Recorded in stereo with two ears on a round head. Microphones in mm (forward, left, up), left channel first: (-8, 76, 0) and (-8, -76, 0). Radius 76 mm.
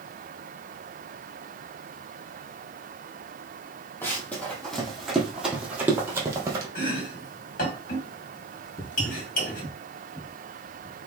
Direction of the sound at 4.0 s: 10° left (ahead or behind).